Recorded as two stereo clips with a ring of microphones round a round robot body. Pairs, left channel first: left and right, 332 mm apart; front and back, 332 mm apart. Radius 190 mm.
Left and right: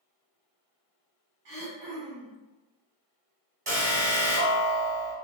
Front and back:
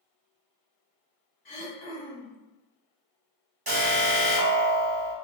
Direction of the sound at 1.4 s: 50° right.